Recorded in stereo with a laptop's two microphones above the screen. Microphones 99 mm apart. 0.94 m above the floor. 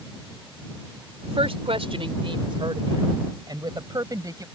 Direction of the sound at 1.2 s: 80° right.